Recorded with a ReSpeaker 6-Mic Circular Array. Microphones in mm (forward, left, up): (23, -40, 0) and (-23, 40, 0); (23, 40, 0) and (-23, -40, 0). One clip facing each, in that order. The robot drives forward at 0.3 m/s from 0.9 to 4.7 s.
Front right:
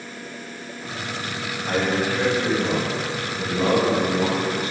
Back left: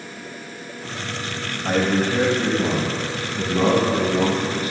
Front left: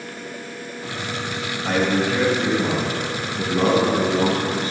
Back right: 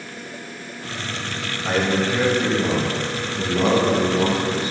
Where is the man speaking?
155° left, 1.4 m; by 4.7 s 165° left, 2 m.